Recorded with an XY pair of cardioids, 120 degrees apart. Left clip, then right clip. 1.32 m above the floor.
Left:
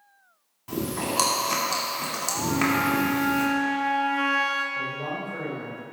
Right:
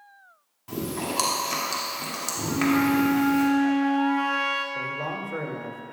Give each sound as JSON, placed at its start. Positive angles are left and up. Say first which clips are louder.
{"t": 0.7, "sound": "chewing", "louder": "left 2 dB", "azimuth_deg": 5, "distance_m": 2.5}
{"t": 2.5, "sound": "a flute", "louder": "right 1 dB", "azimuth_deg": 5, "distance_m": 1.8}
{"t": 4.8, "sound": "a man speaking", "louder": "even", "azimuth_deg": -50, "distance_m": 2.5}